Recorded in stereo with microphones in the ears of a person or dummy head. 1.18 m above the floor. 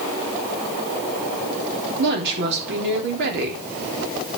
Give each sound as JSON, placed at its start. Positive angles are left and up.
{"t": 2.0, "sound": "a woman speaking", "side_deg": -60, "distance_m": 3.5}